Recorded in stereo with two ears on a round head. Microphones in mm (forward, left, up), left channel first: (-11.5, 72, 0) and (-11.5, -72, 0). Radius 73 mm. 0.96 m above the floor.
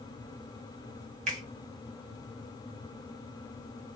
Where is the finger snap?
45° right (ahead or behind), 1.5 m.